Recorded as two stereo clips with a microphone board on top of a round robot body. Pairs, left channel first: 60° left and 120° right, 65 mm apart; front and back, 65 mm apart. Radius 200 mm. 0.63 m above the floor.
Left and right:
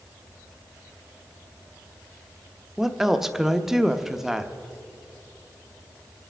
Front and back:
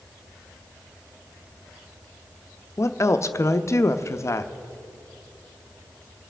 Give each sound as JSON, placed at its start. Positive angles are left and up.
{"t": 2.8, "sound": "a woman speaking", "azimuth_deg": -35, "distance_m": 0.9}